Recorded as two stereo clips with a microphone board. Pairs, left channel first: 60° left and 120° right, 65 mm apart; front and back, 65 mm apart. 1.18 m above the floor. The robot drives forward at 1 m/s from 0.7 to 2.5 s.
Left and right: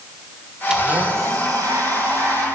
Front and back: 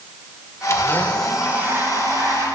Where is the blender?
45° right, 0.9 m; by 2.5 s 155° right, 1.3 m.